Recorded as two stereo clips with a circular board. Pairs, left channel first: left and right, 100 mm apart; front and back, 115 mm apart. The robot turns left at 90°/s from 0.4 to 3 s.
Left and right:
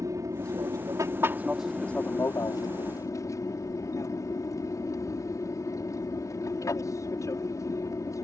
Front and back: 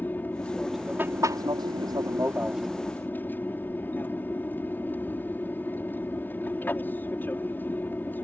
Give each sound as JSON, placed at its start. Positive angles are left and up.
{"t": 0.0, "sound": "an aircraft", "azimuth_deg": -65}